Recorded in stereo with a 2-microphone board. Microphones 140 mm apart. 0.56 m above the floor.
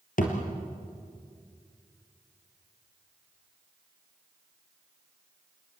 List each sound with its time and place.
0.2 s a thud: 75° left (ahead or behind), 4.5 m